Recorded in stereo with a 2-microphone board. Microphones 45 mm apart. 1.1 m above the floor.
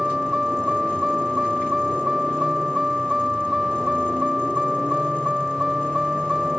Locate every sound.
0.0 s a vehicle: 10° right (ahead or behind)